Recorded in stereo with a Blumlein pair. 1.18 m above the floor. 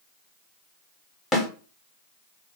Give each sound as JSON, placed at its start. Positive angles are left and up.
{"t": 1.3, "sound": "a snare drum", "azimuth_deg": 10, "distance_m": 1.0}